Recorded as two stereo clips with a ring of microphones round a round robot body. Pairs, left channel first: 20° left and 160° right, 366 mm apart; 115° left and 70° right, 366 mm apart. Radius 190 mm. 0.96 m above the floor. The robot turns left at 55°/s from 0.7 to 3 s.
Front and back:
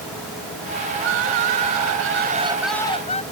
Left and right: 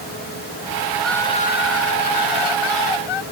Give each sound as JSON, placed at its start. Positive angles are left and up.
{"t": 0.9, "sound": "crying", "azimuth_deg": -150}